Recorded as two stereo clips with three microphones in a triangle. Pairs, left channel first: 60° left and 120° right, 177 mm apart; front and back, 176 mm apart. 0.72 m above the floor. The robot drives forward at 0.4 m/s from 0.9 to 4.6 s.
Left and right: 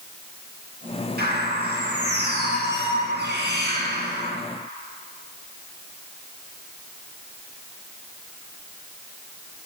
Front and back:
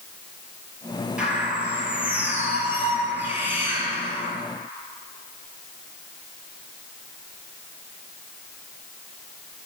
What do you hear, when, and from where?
1.2 s a bird: 95° right, 9.5 m; by 4.3 s 105° right, 9.5 m